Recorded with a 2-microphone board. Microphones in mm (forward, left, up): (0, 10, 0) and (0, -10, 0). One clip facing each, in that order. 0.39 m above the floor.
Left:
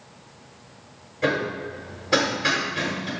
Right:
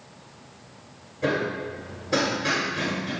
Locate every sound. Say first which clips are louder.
1.2 s hammering: left 1 dB; 40° left (ahead or behind), 1.6 m